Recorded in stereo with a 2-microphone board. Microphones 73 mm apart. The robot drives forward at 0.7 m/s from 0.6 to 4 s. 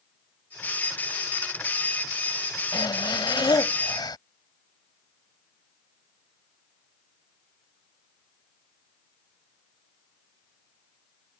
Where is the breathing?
80° left; by 4.2 s 75° left (ahead or behind).